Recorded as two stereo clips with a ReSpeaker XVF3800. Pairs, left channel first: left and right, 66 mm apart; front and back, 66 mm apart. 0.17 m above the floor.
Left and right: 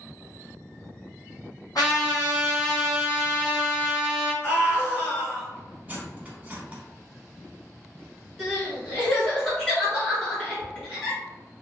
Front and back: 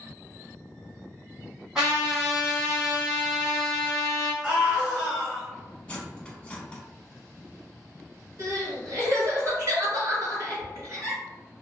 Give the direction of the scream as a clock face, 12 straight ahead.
8 o'clock.